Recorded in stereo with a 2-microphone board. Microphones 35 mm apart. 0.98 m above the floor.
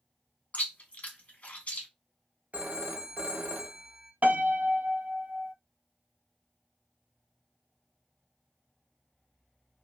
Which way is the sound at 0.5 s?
50° left (ahead or behind).